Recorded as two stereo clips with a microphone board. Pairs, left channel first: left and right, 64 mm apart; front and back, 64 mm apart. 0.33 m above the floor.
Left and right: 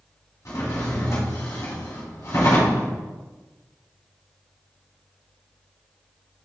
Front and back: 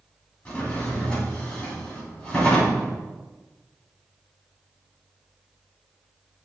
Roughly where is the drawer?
Left.